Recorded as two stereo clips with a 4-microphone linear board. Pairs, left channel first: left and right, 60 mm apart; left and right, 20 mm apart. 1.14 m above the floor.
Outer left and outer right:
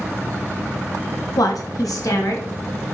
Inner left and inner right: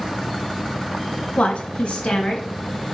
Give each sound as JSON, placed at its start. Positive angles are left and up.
{"t": 1.4, "sound": "a woman speaking", "side_deg": 85, "distance_m": 0.6}